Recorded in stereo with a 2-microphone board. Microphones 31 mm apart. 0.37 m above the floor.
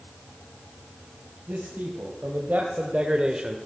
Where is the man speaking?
65° right (ahead or behind), 3 m; by 3.6 s 15° right (ahead or behind), 1.2 m.